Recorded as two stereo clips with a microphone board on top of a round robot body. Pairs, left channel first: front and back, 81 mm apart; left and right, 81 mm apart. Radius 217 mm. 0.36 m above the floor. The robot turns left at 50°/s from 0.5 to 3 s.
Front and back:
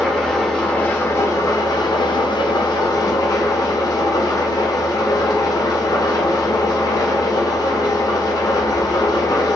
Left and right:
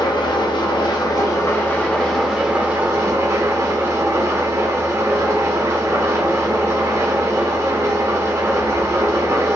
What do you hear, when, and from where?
0.0 s an engine running: 85° left, 1.4 m; by 9.6 s 40° right, 1.4 m